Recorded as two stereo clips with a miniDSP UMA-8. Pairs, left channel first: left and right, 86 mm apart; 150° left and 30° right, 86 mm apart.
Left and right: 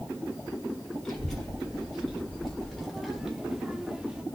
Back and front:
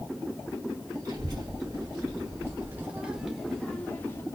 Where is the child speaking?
10° left, 1.4 m; by 4.2 s 165° right, 0.8 m.